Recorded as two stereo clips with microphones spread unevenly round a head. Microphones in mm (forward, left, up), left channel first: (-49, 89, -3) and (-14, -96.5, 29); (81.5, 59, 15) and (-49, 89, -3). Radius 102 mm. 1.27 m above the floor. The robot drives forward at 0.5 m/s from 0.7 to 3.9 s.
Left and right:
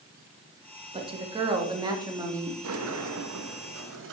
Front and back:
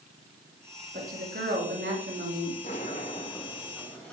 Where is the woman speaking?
140° right, 1.9 m; by 2.5 s 155° right, 2.5 m.